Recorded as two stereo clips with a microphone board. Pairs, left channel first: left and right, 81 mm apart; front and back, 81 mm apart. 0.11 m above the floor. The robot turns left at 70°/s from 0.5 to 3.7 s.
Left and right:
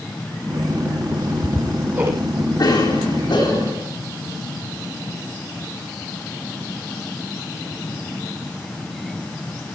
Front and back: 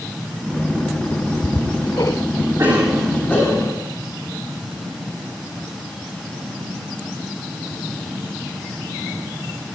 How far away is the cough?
About 8 m.